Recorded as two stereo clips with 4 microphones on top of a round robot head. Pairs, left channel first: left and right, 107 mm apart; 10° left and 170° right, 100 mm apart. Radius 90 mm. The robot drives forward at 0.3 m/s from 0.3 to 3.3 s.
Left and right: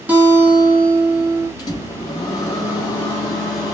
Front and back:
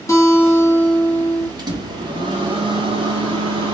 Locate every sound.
0.1 s a guitar: 25° right, 1.1 m; by 1.5 s 50° right, 1.0 m
1.6 s a microwave: 145° left, 0.9 m; by 3.7 s 155° left, 1.4 m